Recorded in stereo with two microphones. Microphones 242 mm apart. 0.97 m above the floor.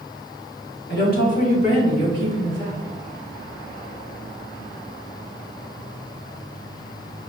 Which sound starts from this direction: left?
A woman speaking, at 0.9 s.